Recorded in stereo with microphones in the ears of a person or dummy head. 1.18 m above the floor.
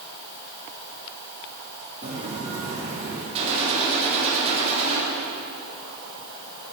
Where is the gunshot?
35° right (ahead or behind), 2.5 m.